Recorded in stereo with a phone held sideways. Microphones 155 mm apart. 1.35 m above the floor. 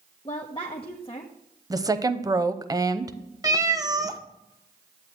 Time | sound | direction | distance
0.2 | a woman speaking | 35° left (ahead or behind) | 0.9 m
1.7 | a woman speaking | 25° right (ahead or behind) | 0.6 m
3.4 | a cat meowing | 25° right (ahead or behind) | 0.6 m